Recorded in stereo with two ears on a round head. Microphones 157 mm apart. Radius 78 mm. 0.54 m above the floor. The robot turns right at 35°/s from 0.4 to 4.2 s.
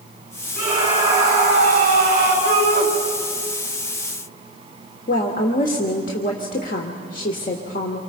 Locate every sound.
0.6 s a scream: 155° right, 10 m; by 2.4 s 95° right, 10 m
2.5 s a shout: 65° right (ahead or behind), 3.5 m; by 2.9 s 55° right (ahead or behind), 3.5 m
5.1 s a woman speaking: 50° left (ahead or behind), 1.4 m